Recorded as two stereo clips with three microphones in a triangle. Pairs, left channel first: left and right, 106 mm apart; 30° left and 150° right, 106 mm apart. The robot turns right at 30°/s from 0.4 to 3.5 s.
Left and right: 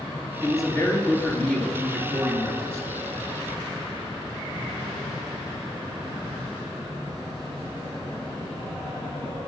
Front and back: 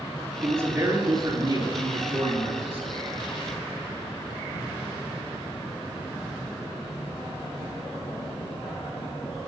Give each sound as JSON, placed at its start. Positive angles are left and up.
{"t": 0.4, "sound": "a man speaking", "azimuth_deg": 140, "distance_m": 4.0}